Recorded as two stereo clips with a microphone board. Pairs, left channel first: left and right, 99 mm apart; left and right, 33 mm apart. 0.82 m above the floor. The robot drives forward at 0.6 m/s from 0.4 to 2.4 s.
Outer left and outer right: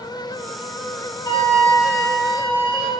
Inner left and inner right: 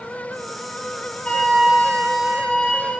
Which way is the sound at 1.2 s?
45° left (ahead or behind).